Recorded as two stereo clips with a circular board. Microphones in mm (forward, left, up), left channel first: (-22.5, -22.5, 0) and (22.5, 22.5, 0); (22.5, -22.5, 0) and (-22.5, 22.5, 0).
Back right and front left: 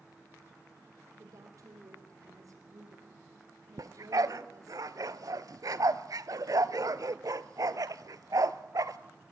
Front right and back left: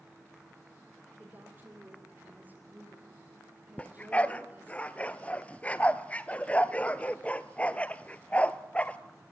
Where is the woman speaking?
75° left, 6.5 m.